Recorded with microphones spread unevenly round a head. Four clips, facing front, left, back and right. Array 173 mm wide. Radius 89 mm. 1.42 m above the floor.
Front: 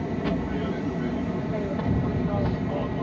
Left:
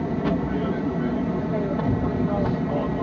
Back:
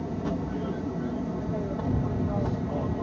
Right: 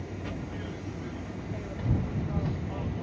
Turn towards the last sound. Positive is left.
turn(degrees=85)